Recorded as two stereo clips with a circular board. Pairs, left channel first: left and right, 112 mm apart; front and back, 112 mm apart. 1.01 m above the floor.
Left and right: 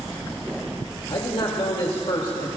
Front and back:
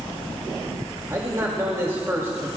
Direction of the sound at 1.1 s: 120° left.